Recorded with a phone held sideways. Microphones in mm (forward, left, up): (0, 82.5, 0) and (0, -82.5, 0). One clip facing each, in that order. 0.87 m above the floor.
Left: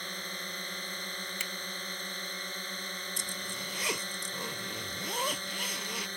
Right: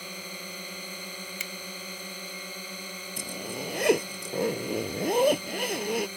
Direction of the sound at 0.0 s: 10° right (ahead or behind).